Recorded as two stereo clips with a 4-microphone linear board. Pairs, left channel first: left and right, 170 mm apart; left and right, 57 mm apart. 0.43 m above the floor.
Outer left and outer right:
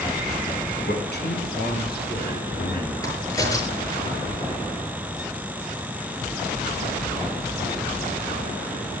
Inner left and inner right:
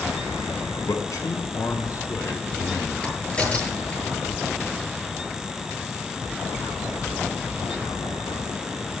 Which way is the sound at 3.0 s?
20° left (ahead or behind).